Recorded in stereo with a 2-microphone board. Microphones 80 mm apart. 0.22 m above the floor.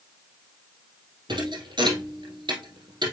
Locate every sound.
1.3 s a thud: 75° right (ahead or behind), 2.5 m